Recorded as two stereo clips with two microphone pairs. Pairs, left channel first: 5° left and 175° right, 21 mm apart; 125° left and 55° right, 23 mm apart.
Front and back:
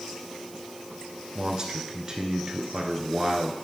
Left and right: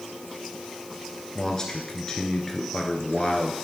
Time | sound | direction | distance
1.4 | a man speaking | 165° left | 1.2 m